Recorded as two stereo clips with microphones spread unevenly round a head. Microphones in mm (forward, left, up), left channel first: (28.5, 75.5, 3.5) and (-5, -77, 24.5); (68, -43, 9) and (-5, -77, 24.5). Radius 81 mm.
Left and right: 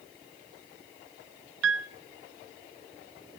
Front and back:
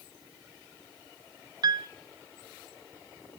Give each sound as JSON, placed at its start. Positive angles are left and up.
{"t": 1.6, "sound": "a piano", "azimuth_deg": -115, "distance_m": 0.6}